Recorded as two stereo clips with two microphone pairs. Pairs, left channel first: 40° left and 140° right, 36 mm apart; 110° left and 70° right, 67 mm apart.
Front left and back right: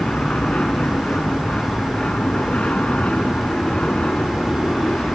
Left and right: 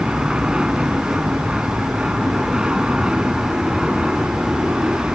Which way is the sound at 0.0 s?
5° left.